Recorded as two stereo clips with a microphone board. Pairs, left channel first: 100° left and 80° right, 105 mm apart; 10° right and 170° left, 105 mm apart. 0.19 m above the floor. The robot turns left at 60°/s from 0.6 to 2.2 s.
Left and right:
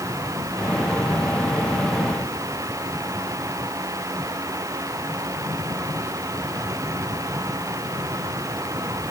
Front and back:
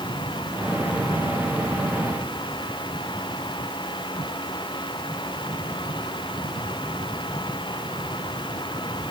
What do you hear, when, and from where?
Only background noise.